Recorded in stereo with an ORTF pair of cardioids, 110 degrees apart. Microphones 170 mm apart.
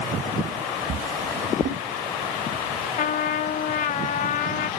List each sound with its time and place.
0.9 s a drawer: 55° right, 3 m
3.0 s a trumpet: 50° left, 1.0 m